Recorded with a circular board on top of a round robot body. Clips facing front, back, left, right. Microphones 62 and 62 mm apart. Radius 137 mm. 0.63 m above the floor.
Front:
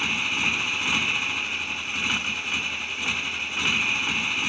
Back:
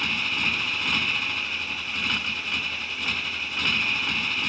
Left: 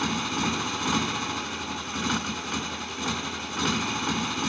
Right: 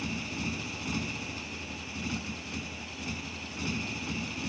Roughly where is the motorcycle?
Left.